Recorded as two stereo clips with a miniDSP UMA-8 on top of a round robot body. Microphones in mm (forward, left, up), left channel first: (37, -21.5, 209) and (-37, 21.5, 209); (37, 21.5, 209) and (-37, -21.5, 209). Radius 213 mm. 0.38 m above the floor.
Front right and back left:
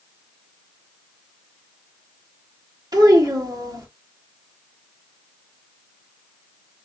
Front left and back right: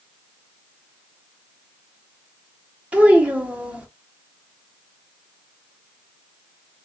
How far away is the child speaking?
About 1.3 m.